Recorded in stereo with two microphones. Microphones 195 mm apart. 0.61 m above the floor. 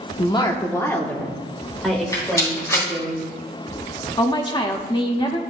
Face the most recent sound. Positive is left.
turn(degrees=25)  # may be behind; listen again after turning